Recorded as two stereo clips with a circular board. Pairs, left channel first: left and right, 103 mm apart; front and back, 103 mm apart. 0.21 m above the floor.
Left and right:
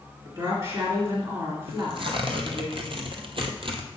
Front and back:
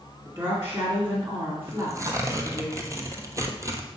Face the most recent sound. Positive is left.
turn(degrees=-120)